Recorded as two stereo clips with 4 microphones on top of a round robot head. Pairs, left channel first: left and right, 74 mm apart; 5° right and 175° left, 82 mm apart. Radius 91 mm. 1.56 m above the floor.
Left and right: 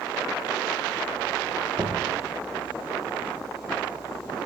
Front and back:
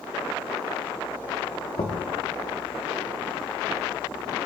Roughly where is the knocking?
Ahead right.